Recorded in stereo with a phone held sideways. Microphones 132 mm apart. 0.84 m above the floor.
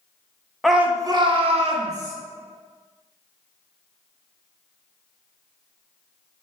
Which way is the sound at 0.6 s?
Centre (ahead or behind).